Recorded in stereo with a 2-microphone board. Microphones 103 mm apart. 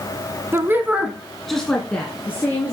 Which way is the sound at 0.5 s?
25° right (ahead or behind).